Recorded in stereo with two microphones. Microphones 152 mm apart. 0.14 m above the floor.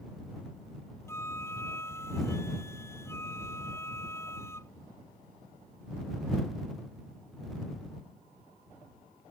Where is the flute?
15° left (ahead or behind).